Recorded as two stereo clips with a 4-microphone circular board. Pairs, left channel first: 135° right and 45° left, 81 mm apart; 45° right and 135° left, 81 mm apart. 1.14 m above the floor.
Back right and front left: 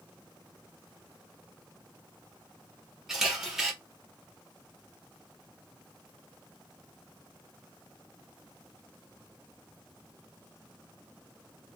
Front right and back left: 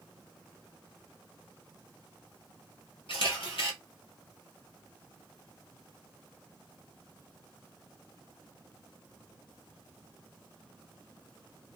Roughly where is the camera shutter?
Ahead right.